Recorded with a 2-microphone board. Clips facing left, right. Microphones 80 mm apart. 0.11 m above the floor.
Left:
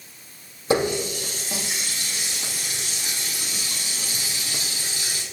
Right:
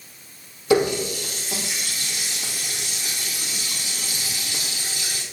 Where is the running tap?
35° left (ahead or behind), 2.5 m.